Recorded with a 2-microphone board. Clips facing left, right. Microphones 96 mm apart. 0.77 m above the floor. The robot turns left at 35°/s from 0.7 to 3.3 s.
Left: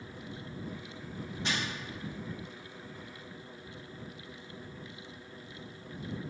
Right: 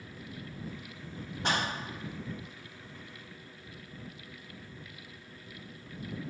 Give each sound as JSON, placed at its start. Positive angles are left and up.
{"t": 1.4, "sound": "a clap", "side_deg": -50}